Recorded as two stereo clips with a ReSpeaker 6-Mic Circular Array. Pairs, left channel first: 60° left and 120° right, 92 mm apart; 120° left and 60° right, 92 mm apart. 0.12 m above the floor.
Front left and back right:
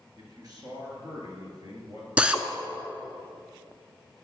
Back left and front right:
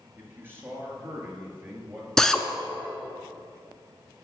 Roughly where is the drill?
Behind.